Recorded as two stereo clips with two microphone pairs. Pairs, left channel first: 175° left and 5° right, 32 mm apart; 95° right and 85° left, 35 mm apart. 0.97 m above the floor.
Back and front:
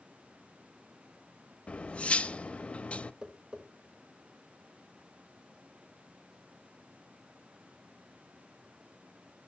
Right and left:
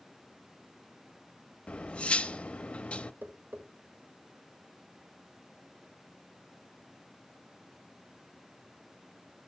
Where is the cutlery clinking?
145° right, 0.5 m.